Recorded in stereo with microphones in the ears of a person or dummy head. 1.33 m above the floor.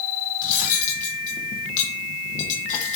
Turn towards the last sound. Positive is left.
turn(degrees=45)  # may be behind; listen again after turning